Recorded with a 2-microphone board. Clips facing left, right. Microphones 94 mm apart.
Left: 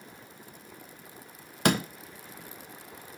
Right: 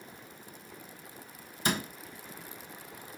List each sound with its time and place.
1.6 s a door slam: 70° left (ahead or behind), 0.6 m